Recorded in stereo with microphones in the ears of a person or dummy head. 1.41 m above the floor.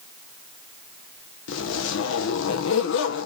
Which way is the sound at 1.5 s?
70° left (ahead or behind).